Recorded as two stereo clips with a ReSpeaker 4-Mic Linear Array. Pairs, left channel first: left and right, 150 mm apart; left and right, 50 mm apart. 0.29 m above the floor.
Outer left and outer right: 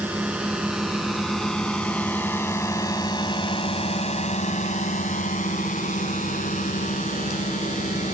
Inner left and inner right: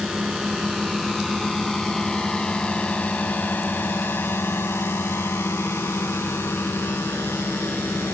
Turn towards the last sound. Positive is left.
turn(degrees=50)  # may be behind; listen again after turning